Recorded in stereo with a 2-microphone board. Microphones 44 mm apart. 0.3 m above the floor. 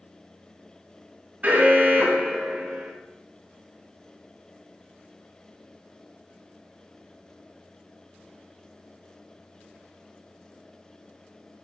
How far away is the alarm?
About 2.5 m.